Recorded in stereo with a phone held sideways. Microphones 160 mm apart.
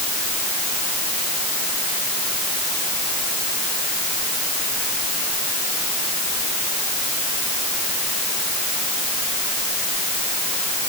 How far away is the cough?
I don't hear a cough.